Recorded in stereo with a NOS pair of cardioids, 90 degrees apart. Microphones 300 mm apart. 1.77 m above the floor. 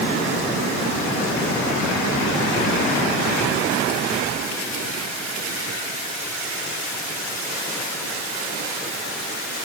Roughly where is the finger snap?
I don't hear a finger snap.